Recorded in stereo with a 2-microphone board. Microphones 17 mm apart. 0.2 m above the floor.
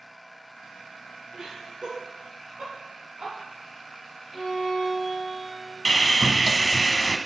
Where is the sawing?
35° left (ahead or behind), 0.6 m.